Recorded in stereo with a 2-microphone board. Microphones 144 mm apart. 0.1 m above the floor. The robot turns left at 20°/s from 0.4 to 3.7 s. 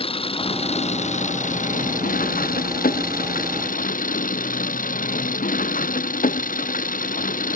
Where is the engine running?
140° left; by 7.6 s 75° left.